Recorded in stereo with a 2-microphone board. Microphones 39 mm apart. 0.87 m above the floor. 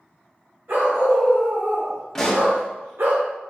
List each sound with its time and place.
0.7 s a dog barking: 65° right (ahead or behind), 2.0 m; by 3.1 s 75° right (ahead or behind), 0.9 m
2.1 s a pop: 10° left (ahead or behind), 0.7 m